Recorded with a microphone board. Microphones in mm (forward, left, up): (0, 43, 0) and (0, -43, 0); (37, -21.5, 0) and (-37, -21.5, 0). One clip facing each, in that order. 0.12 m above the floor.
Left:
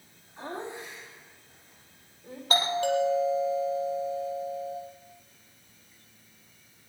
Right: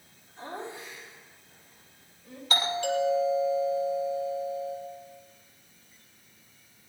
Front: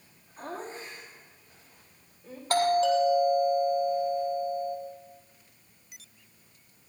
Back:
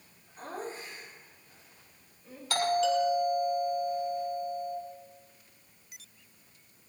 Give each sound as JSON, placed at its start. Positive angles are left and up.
{"t": 0.4, "sound": "laughter", "azimuth_deg": 65, "distance_m": 8.5}
{"t": 2.5, "sound": "a doorbell", "azimuth_deg": 45, "distance_m": 4.0}